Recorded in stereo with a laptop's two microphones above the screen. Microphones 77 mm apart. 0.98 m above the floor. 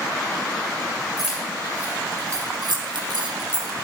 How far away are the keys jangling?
About 1.8 m.